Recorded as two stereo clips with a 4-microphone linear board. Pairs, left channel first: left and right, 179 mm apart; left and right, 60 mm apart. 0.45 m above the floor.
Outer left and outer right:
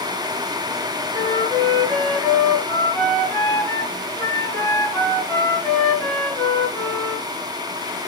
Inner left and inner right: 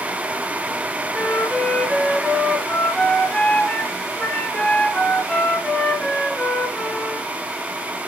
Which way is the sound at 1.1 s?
10° left (ahead or behind).